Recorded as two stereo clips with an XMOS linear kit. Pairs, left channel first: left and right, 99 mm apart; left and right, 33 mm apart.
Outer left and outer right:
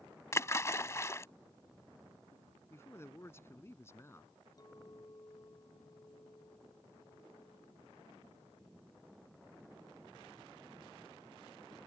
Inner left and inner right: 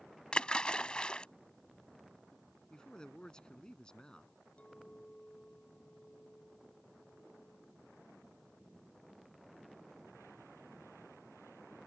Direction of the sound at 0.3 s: 30° left (ahead or behind).